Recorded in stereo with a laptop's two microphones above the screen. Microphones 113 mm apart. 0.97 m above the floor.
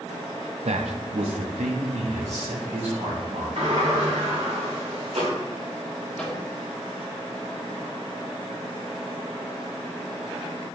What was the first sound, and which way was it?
A man speaking, 70° right (ahead or behind).